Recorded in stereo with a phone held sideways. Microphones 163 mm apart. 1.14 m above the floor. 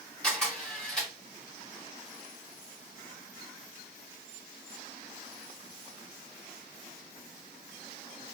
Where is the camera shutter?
5° left (ahead or behind), 2.5 m.